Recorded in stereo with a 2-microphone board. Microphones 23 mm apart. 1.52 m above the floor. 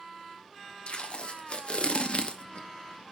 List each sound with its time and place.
0.9 s tape being pulled: 60° left (ahead or behind), 1.0 m